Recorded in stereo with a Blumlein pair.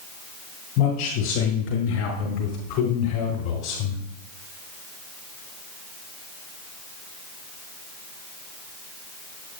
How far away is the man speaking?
About 5.5 m.